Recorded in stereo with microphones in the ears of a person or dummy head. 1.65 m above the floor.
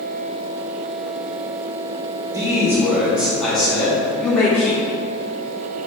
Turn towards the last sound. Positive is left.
turn(degrees=10)  # may be behind; listen again after turning